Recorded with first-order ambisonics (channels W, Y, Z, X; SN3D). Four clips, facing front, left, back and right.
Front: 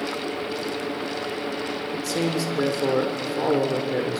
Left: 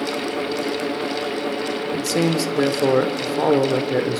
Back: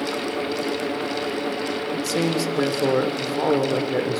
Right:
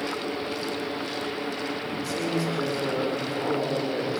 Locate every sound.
1.9 s a man speaking: 100° left, 1.6 m